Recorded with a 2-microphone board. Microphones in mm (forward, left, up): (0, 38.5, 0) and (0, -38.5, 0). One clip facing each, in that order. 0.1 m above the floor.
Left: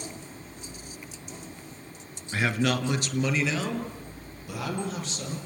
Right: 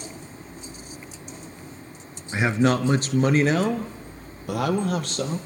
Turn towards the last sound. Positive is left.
turn(degrees=-65)  # may be behind; listen again after turning